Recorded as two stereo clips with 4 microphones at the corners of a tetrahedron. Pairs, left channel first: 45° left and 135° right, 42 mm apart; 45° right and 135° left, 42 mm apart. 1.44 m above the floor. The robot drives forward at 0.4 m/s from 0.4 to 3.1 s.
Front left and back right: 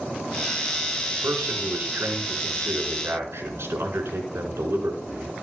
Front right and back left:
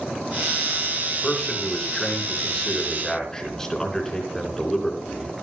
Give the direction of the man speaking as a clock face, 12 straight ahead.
4 o'clock.